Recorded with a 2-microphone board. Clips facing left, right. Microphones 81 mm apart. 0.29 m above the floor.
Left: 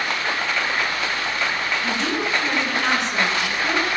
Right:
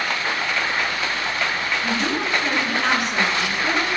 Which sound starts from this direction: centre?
A woman speaking, at 1.8 s.